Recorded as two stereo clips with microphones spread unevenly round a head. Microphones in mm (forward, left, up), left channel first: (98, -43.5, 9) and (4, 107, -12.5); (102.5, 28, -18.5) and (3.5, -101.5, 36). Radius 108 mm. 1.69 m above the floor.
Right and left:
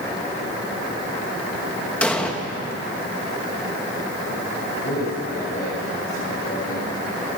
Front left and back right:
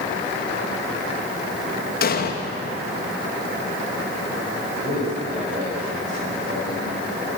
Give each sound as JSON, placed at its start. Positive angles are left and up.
{"t": 2.0, "sound": "an explosion", "azimuth_deg": 25, "distance_m": 3.0}
{"t": 4.8, "sound": "a man speaking", "azimuth_deg": -95, "distance_m": 9.5}